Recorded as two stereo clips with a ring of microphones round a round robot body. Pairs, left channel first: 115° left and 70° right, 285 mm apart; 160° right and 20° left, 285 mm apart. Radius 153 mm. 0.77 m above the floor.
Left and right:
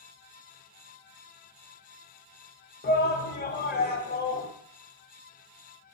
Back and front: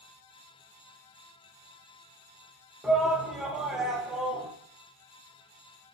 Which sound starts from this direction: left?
A shout, at 2.8 s.